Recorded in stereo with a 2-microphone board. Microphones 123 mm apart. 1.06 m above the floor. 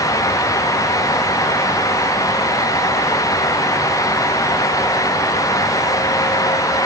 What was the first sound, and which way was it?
Only background noise.